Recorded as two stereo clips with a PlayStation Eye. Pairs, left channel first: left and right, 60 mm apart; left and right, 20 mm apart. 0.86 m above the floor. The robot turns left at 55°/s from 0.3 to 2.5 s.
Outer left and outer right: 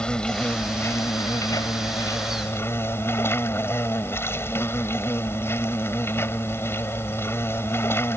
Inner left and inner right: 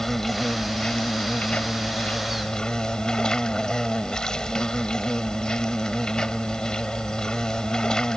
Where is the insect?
165° left; by 8.2 s 45° left.